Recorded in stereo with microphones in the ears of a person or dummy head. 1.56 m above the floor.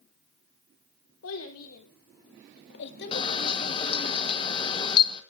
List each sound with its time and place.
1.2 s a child speaking: 85° left, 4 m; by 4.1 s 25° left (ahead or behind), 2 m
3.1 s a camera shutter: 25° left (ahead or behind), 1.6 m